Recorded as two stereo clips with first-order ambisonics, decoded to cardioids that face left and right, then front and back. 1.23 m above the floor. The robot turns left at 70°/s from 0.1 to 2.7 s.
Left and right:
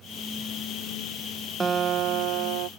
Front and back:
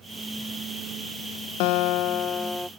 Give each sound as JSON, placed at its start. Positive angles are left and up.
{"t": 1.6, "sound": "a guitar", "azimuth_deg": -15}